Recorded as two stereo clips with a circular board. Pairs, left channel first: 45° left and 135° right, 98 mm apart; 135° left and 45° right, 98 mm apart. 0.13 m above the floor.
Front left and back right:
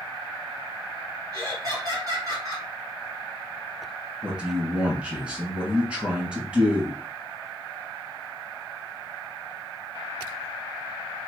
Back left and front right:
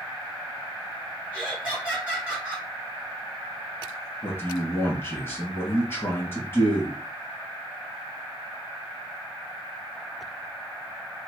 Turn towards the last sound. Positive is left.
turn(degrees=160)